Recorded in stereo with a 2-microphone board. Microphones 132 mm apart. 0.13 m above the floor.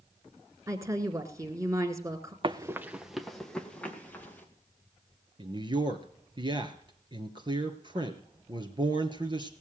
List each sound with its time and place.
0.7 s a woman speaking: 25° right (ahead or behind), 1.8 m
2.4 s running footsteps: 40° right (ahead or behind), 0.8 m; by 4.5 s 15° left (ahead or behind), 3.5 m
5.4 s a man speaking: 35° right (ahead or behind), 1.8 m